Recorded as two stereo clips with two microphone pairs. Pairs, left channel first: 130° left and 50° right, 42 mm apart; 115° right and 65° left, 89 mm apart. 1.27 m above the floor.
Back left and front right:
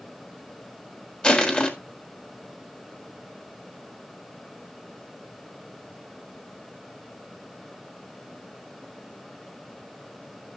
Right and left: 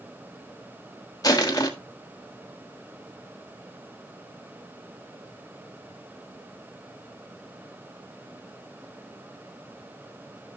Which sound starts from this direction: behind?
Crushing, at 1.2 s.